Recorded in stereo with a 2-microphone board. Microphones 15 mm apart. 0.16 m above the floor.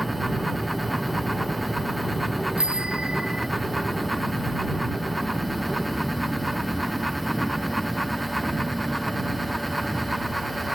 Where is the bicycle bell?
75° right (ahead or behind).